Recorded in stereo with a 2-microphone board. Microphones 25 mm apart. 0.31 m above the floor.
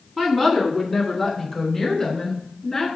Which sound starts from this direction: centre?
A woman speaking, at 0.2 s.